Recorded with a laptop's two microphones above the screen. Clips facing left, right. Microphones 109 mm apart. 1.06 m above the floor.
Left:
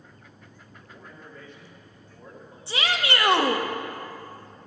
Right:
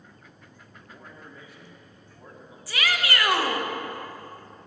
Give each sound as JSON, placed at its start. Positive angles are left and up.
{"t": 0.8, "sound": "a man speaking", "side_deg": -10, "distance_m": 2.5}
{"t": 2.7, "sound": "a shout", "side_deg": 25, "distance_m": 0.9}